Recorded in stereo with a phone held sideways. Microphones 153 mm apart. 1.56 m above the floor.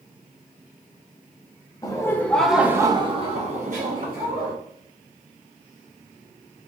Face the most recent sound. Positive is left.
turn(degrees=-65)  # may be behind; listen again after turning